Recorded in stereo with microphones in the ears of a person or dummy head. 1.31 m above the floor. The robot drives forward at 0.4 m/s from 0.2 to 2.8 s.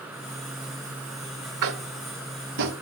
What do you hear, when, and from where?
1.6 s tapping: 75° right (ahead or behind), 0.8 m; by 2.7 s 60° right (ahead or behind), 0.9 m